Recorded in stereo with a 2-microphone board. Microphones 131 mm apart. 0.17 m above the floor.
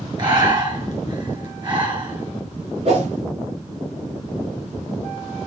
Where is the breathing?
35° right (ahead or behind), 1.7 m.